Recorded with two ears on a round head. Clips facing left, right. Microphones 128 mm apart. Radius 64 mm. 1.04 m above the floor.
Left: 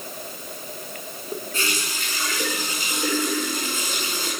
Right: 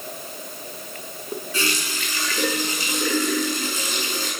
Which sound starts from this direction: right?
A running tap, at 1.5 s.